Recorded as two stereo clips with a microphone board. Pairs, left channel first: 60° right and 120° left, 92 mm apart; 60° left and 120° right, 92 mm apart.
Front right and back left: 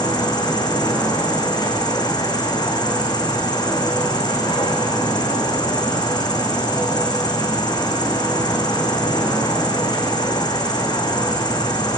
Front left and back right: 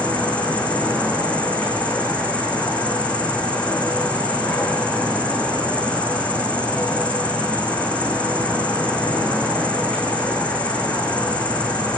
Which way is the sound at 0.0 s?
20° right.